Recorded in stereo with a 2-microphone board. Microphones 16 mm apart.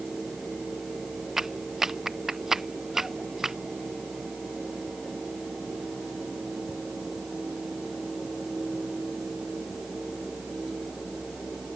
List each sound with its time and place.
1.4 s a clap: 25° right (ahead or behind)